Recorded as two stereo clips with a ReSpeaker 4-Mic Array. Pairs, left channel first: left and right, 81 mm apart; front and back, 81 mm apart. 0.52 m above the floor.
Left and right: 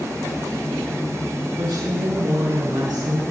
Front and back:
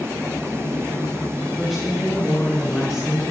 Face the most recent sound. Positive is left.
turn(degrees=-75)